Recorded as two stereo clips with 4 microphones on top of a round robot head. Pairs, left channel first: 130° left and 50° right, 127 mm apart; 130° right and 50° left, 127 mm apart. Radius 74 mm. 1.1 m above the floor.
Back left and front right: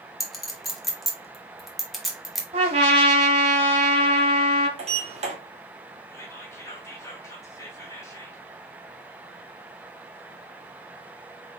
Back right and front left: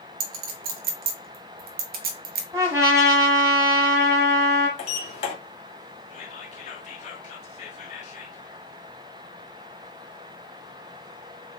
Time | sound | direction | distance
0.2 | a clink | 40° left | 1.0 m
2.5 | a trumpet | 15° right | 1.3 m
4.8 | a sliding door | 90° right | 1.9 m
6.1 | whispering | 160° right | 1.7 m